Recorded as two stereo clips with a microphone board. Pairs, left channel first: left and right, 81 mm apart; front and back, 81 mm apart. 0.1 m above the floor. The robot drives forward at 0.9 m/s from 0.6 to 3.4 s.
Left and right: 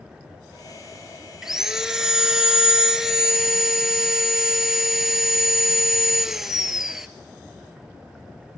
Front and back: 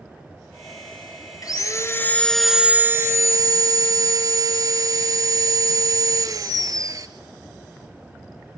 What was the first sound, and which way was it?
Sawing, 5° right.